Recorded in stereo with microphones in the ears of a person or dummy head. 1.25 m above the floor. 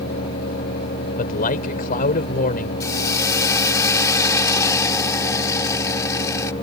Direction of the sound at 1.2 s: 50° left (ahead or behind).